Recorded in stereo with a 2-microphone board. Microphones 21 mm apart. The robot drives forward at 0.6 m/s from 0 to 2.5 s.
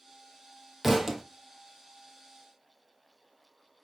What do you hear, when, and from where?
0.8 s a thud: 15° right (ahead or behind), 1.0 m; by 1.2 s 20° right (ahead or behind), 0.8 m